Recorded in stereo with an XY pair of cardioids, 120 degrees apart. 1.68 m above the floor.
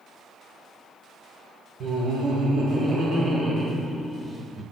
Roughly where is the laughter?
Ahead right.